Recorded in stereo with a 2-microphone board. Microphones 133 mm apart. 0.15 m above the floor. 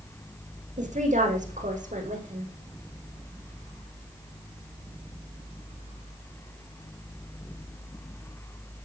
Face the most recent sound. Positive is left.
turn(degrees=-75)  # may be behind; listen again after turning